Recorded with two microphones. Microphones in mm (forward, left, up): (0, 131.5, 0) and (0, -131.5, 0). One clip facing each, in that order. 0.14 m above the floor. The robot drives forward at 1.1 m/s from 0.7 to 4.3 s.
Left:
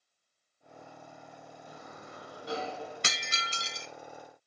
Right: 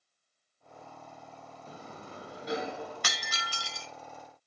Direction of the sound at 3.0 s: 30° left (ahead or behind).